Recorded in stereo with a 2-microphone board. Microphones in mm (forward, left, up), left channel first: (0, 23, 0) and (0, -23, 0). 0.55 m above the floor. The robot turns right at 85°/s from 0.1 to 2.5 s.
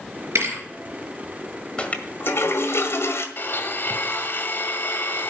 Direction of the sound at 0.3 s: 75° right (ahead or behind).